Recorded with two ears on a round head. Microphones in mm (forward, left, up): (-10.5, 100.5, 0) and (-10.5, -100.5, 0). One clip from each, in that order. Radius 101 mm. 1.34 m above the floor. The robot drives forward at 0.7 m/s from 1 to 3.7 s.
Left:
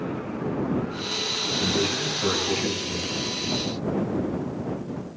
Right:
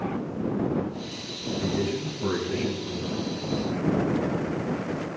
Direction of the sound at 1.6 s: 90° left.